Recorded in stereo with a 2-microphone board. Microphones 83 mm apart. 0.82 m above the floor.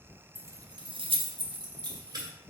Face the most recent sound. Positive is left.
turn(degrees=-50)  # may be behind; listen again after turning